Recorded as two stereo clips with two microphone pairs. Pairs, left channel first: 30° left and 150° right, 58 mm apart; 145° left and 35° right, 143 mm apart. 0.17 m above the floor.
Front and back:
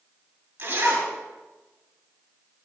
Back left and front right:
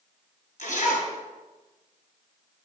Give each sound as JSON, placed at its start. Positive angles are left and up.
{"t": 0.6, "sound": "a zipper", "azimuth_deg": 155, "distance_m": 2.5}